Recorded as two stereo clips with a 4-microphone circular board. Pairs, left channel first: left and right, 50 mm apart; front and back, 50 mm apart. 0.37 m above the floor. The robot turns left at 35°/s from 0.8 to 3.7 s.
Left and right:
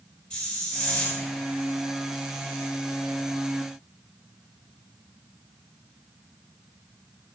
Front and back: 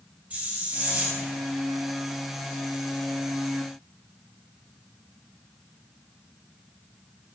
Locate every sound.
0.3 s a hiss: 150° left, 1.6 m; by 1.3 s 135° left, 1.6 m